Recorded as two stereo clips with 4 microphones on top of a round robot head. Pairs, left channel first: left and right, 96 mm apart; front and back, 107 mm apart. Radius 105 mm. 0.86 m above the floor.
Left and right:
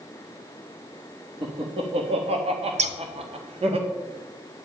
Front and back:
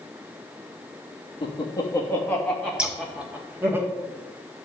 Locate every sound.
1.4 s laughter: 50° right, 1.7 m; by 3.8 s 110° right, 2.5 m
2.8 s scissors: 95° right, 0.9 m